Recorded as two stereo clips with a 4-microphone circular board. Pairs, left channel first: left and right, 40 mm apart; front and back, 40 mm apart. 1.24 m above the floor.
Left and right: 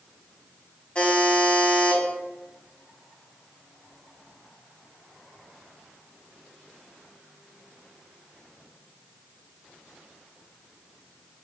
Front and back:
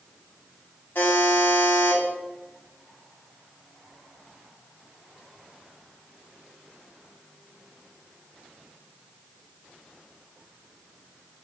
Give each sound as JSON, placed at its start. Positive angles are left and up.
{"t": 0.9, "sound": "a buzzer", "azimuth_deg": 30, "distance_m": 0.8}